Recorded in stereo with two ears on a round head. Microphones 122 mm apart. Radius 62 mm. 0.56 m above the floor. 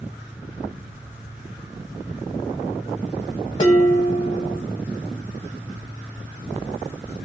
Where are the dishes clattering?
35° left (ahead or behind), 1.4 m.